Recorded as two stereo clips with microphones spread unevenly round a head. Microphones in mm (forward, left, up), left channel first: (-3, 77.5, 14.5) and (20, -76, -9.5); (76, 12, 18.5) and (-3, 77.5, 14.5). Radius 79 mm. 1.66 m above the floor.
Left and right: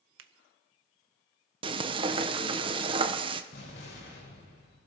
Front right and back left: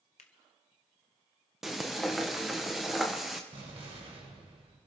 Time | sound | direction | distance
0.2 | a finger snap | 85° right | 0.7 m
1.6 | frying | 130° right | 0.6 m
3.5 | an explosion | 120° left | 4 m